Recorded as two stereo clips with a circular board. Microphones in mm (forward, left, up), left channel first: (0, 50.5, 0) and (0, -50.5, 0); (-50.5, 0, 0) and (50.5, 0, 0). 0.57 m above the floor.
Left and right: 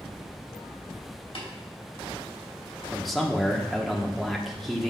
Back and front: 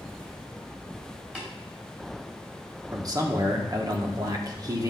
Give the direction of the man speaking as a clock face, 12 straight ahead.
12 o'clock.